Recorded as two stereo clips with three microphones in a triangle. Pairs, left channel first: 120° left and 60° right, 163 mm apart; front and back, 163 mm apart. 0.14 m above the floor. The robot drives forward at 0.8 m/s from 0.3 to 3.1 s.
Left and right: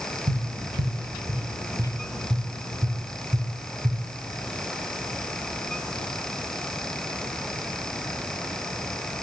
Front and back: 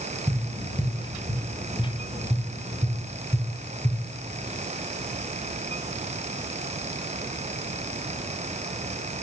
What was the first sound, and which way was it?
Tapping, 90° right.